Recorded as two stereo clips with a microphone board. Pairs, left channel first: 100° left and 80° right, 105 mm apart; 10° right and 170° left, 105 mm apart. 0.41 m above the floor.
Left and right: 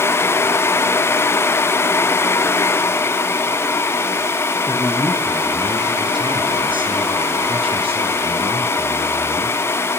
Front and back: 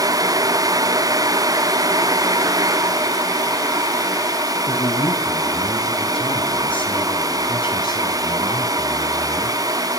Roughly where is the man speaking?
Ahead right.